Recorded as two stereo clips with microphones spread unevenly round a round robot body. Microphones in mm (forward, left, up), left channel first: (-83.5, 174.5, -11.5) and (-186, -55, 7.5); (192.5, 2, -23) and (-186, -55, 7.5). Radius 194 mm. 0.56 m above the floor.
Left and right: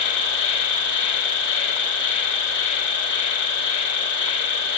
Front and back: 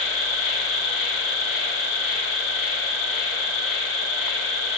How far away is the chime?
I don't hear a chime.